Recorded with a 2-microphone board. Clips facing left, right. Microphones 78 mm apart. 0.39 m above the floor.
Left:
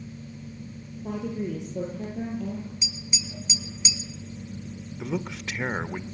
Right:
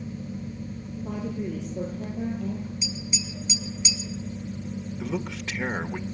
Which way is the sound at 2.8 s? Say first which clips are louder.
Right 4 dB; 20° left (ahead or behind).